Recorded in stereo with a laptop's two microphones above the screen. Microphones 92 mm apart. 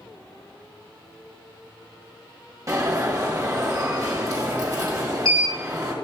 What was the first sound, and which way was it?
An alarm, 40° right (ahead or behind).